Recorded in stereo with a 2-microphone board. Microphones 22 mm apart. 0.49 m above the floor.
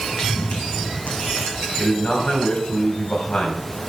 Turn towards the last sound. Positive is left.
turn(degrees=65)  # may be behind; listen again after turning